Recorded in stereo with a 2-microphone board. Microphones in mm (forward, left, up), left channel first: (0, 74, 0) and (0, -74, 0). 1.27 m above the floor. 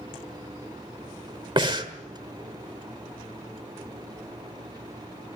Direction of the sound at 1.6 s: 35° right (ahead or behind).